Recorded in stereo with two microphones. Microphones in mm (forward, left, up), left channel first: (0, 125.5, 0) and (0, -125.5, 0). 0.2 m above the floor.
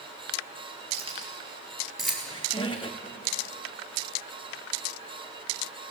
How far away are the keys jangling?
About 2.5 m.